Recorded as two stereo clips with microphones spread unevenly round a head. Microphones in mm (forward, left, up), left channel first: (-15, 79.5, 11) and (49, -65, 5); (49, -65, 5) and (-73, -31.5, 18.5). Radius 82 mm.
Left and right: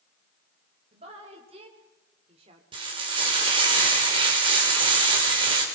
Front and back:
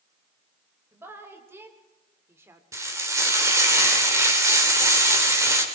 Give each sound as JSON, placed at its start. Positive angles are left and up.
{"t": 0.9, "sound": "a woman speaking", "azimuth_deg": -125, "distance_m": 4.0}
{"t": 2.7, "sound": "frying", "azimuth_deg": -130, "distance_m": 3.5}